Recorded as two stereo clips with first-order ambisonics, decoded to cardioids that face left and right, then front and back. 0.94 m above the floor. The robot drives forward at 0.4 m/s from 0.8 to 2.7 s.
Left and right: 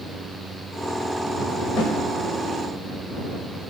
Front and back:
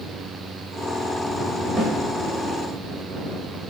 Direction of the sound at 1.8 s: 125° left.